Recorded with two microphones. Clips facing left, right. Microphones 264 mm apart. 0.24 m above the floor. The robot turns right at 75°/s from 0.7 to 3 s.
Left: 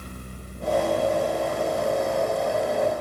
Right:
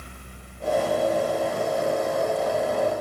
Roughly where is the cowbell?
No cowbell in this recording.